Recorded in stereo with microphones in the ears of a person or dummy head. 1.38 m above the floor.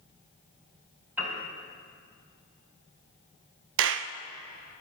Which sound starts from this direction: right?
A clap, at 3.8 s.